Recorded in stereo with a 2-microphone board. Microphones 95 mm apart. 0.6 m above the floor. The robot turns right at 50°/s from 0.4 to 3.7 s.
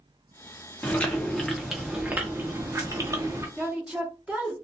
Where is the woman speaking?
10° right (ahead or behind), 1.0 m; by 4.5 s 15° right (ahead or behind), 1.0 m.